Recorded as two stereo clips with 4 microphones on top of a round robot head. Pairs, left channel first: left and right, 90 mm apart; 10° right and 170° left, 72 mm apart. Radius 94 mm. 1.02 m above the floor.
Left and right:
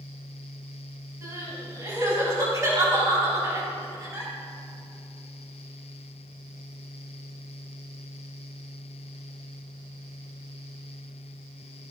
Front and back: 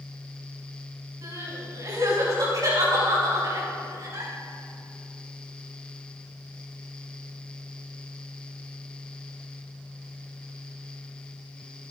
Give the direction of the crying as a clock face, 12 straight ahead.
5 o'clock.